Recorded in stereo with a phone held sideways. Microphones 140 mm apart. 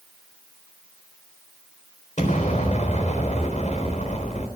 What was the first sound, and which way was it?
An explosion, 60° left (ahead or behind).